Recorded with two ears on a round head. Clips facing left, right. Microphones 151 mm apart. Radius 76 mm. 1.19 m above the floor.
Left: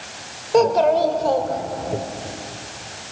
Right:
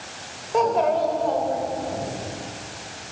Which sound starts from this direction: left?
A child speaking, at 0.5 s.